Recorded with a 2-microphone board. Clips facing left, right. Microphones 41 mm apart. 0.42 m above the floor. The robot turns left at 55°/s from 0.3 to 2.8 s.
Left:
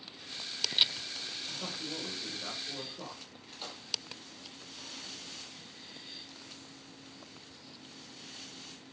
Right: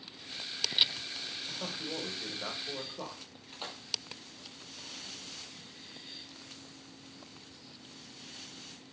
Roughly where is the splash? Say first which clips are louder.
Right 2 dB; right.